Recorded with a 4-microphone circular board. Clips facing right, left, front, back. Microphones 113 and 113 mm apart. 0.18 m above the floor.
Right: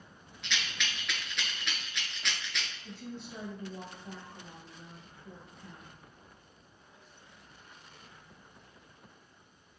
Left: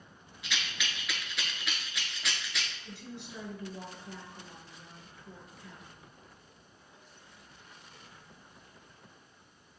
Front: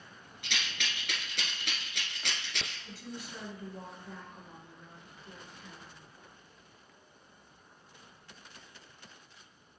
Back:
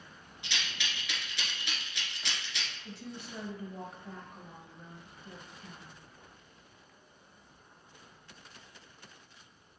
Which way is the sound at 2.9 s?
130° right.